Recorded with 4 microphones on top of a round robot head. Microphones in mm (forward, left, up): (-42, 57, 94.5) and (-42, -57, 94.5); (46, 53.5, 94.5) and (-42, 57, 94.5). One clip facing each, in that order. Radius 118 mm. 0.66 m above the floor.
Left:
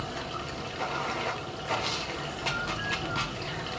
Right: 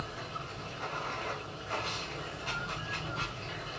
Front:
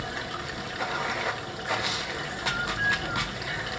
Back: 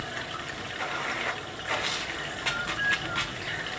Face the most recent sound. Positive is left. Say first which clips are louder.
# left 5 dB, front 2 dB
turn(degrees=75)